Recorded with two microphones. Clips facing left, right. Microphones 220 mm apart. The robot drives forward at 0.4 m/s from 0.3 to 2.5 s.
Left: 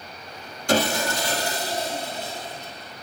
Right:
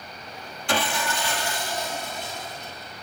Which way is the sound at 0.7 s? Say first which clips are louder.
Left 5 dB; 40° left (ahead or behind).